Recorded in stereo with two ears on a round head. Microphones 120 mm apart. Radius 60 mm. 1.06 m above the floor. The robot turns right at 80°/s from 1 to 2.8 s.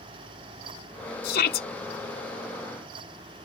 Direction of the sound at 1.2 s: 65° left.